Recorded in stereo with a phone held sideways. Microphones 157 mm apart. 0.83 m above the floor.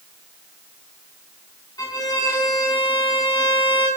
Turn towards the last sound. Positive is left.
turn(degrees=25)  # may be behind; listen again after turning